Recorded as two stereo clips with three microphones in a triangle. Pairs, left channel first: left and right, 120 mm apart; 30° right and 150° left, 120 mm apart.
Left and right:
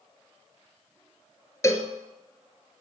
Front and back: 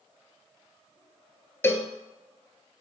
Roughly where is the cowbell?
Ahead left.